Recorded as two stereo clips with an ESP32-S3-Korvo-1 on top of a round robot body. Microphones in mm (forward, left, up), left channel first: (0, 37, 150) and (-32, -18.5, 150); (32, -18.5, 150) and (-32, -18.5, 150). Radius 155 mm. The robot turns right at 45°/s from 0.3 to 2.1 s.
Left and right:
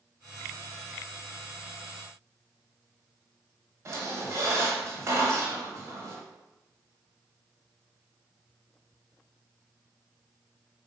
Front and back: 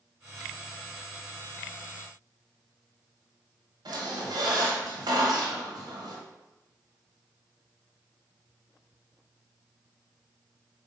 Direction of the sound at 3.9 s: 170° right.